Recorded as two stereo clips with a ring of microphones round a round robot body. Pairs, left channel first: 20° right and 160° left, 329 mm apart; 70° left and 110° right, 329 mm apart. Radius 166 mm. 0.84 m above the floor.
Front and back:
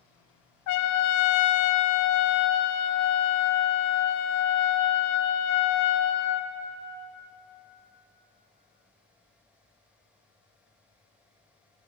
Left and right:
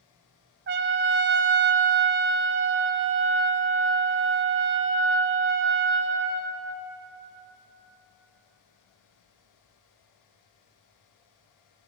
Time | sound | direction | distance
0.7 | a trumpet | 55° right | 0.5 m